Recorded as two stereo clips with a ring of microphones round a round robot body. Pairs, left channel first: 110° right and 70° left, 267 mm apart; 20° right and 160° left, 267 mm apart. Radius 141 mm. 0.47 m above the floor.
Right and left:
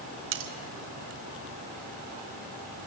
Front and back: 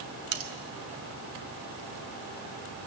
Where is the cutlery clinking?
115° left, 1.6 m.